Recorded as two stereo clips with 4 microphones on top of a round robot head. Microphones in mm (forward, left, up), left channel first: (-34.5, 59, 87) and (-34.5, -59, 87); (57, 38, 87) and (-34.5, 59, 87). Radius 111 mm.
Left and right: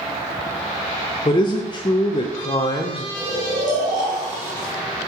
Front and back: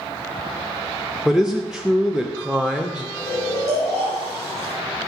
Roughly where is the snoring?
Right.